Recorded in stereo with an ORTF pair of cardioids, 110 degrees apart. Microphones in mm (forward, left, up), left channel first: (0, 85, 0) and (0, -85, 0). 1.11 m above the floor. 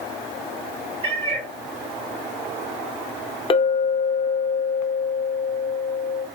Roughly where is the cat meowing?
Ahead right.